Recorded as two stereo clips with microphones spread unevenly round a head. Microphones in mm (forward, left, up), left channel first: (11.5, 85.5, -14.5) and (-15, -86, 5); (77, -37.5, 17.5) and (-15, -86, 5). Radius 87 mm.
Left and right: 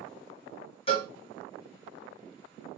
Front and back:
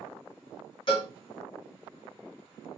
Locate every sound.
0.9 s a cowbell: 25° left, 1.6 m